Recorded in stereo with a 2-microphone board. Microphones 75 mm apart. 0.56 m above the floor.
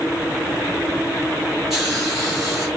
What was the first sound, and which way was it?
A hiss, 5° right (ahead or behind).